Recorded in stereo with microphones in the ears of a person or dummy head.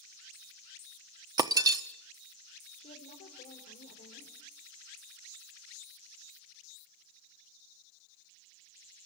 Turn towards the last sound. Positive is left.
turn(degrees=40)  # may be behind; listen again after turning